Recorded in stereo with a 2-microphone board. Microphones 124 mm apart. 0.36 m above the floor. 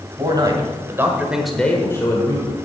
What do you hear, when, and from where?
0.2 s a man speaking: 35° right (ahead or behind), 2.5 m; by 2.5 s 40° left (ahead or behind), 1.9 m